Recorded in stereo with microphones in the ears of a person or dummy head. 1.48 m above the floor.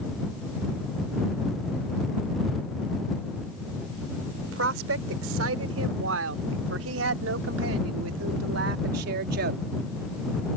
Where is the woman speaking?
85° right; by 9.6 s 55° right (ahead or behind).